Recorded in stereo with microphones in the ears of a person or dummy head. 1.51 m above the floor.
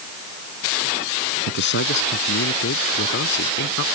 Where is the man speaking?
60° left (ahead or behind).